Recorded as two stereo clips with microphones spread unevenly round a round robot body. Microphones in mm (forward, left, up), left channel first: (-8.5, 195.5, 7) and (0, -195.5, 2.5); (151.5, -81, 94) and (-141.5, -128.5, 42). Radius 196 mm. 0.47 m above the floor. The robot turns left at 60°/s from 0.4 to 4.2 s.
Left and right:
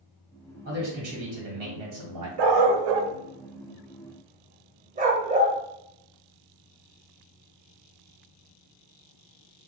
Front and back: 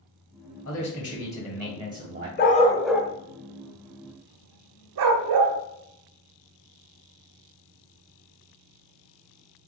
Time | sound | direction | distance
0.7 | a man speaking | 25° right | 1.8 m
2.4 | a dog barking | 50° right | 0.7 m